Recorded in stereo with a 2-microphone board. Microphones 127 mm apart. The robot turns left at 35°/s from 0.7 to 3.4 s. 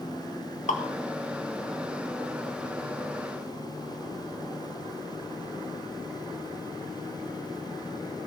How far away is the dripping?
About 1.8 m.